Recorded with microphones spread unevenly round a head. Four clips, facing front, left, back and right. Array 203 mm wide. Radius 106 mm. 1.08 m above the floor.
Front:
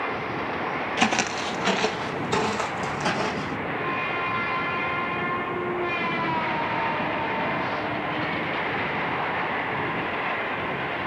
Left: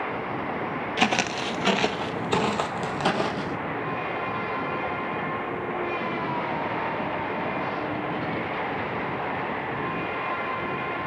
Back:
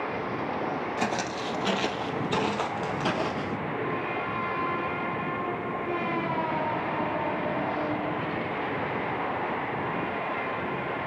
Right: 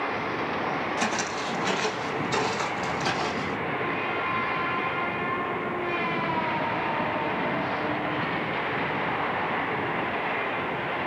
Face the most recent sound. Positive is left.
turn(degrees=90)